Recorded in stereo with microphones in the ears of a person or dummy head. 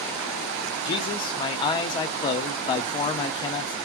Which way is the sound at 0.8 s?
25° left (ahead or behind).